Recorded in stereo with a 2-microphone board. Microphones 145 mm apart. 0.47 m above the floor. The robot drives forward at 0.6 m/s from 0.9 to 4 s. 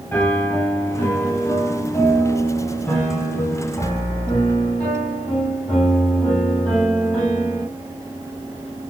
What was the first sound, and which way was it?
A piano, 15° left (ahead or behind).